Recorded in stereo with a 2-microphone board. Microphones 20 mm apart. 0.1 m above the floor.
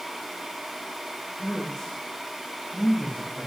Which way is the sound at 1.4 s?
30° left (ahead or behind).